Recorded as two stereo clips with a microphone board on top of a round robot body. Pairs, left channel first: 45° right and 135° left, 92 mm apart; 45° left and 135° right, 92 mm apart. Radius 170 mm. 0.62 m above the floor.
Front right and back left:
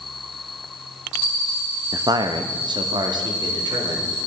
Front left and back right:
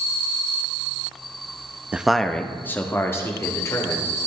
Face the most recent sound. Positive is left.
turn(degrees=100)